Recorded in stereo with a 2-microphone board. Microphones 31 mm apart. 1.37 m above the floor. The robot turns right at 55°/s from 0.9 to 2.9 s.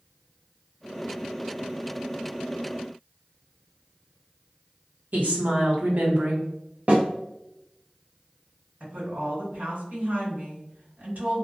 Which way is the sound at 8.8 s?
65° right (ahead or behind).